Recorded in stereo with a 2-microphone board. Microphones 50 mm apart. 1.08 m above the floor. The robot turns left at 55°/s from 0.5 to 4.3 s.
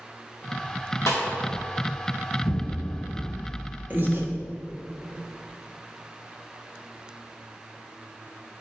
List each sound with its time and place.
1.1 s a snare drum: 65° left (ahead or behind), 2.0 m; by 1.2 s 75° left (ahead or behind), 2.0 m
2.4 s an explosion: 125° left, 1.8 m; by 4.5 s 20° left, 1.8 m
3.9 s breathing: 35° right (ahead or behind), 1.1 m; by 4.3 s 50° right (ahead or behind), 1.1 m